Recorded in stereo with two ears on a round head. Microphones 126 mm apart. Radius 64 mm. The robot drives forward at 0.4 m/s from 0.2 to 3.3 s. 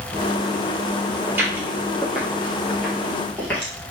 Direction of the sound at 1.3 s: 15° right (ahead or behind).